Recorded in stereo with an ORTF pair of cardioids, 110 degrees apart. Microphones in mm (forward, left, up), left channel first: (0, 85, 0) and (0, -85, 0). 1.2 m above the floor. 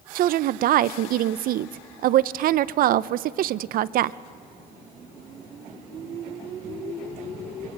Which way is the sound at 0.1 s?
60° right.